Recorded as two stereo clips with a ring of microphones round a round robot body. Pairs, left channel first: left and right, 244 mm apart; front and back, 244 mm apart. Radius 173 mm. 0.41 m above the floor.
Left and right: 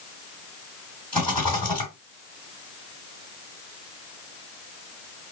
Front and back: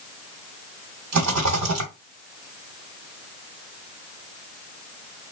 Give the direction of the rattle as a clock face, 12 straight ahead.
6 o'clock.